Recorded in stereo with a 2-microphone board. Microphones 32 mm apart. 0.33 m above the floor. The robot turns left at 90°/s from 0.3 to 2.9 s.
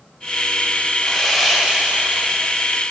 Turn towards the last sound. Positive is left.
turn(degrees=-140)